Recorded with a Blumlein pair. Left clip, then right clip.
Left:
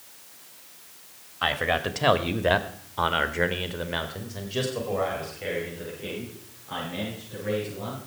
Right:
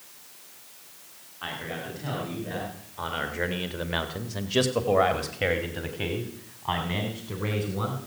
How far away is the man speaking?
About 2.5 m.